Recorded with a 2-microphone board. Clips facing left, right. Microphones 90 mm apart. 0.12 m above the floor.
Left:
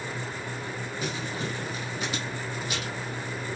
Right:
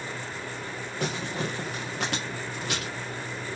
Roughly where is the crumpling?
Right.